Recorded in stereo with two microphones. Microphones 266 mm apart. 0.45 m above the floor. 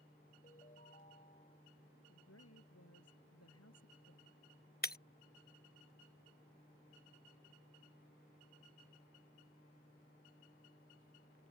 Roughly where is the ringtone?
Left.